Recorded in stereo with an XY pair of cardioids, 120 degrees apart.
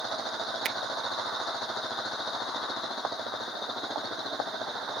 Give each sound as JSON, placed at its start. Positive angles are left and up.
{"t": 0.7, "sound": "a finger snap", "azimuth_deg": -50}